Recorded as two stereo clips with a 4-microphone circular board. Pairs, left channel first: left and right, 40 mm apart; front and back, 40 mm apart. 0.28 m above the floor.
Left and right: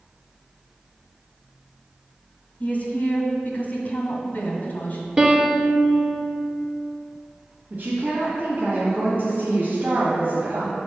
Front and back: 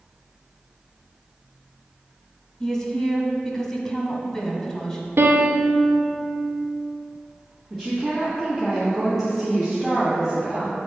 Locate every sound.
2.6 s a woman speaking: 60° left, 1.6 m
5.2 s a piano: 160° right, 1.1 m
7.7 s a woman speaking: 80° right, 1.6 m